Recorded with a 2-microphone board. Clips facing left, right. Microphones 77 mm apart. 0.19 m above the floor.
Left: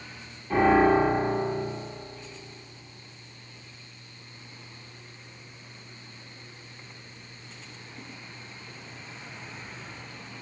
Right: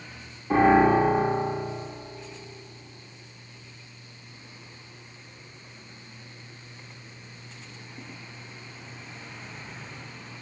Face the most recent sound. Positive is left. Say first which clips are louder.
# right 1 dB
turn(degrees=-30)  # may be behind; listen again after turning